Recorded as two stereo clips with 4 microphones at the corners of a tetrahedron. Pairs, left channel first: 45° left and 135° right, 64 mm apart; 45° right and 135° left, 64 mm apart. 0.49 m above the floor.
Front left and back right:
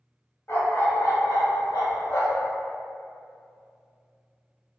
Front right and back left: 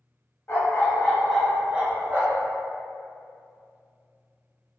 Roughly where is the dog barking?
Ahead.